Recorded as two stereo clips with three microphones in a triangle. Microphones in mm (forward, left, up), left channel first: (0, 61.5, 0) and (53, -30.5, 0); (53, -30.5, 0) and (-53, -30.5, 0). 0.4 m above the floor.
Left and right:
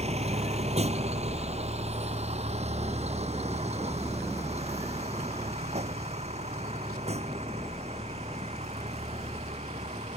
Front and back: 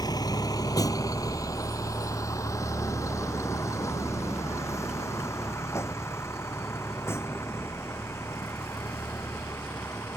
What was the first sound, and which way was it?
A vehicle, 50° right.